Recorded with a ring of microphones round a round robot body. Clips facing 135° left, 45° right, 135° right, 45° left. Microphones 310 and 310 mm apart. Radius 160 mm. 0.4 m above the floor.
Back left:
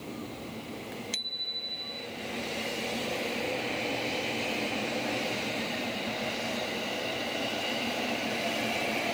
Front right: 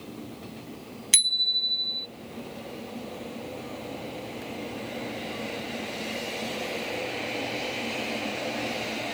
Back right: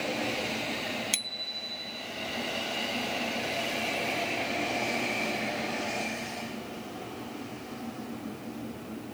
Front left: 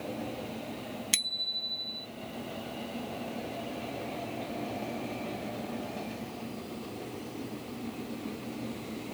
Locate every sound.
1.1 s a bicycle bell: 40° right